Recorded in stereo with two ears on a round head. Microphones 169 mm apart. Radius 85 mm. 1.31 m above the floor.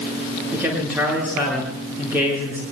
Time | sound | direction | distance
0.5 | a man speaking | 10° right (ahead or behind) | 7 m